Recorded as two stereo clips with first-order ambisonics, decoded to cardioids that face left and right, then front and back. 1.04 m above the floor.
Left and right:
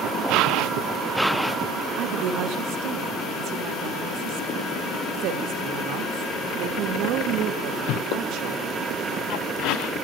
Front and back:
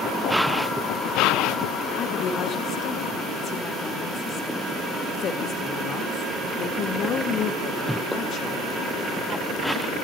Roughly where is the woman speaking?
Ahead right.